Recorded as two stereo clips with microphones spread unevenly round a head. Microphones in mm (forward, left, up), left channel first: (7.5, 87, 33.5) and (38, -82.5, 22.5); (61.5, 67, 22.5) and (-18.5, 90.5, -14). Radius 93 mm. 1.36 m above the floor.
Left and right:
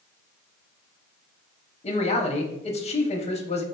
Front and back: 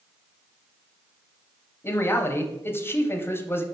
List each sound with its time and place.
1.8 s a man speaking: 45° left, 0.8 m